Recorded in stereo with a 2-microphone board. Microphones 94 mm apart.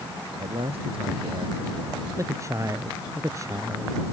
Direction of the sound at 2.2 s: 35° right (ahead or behind).